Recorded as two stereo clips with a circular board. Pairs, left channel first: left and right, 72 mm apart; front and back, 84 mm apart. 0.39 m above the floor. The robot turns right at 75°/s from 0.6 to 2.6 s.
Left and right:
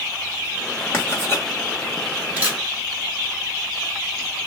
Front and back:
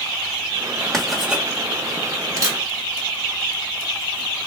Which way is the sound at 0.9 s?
80° left.